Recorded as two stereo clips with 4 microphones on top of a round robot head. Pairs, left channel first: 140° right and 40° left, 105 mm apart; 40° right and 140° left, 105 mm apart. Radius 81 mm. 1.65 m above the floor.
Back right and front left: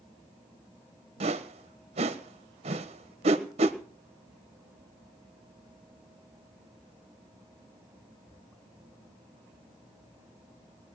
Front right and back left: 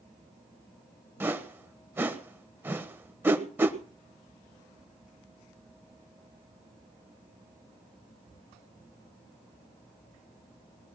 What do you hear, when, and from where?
1.2 s a whoosh: 70° left, 1.3 m